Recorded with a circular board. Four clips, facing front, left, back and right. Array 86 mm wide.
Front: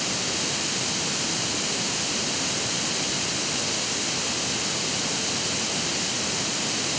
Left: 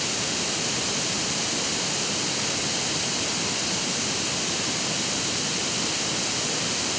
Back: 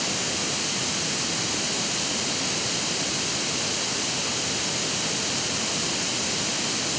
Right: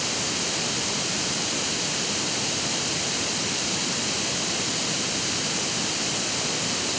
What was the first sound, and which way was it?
Only background noise.